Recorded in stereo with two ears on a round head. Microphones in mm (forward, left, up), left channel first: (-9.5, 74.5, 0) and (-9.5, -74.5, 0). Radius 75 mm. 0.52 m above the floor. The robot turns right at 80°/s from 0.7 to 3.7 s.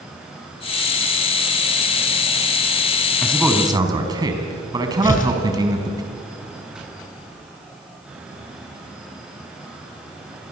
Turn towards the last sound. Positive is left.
turn(degrees=50)  # may be behind; listen again after turning